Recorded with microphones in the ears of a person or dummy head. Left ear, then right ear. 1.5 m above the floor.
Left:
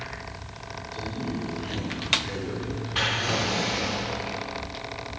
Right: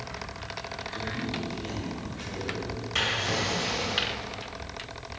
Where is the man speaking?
50° right (ahead or behind), 2 m.